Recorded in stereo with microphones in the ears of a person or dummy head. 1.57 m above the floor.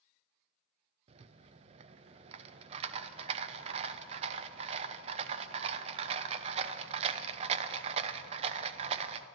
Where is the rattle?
35° right (ahead or behind), 0.5 m.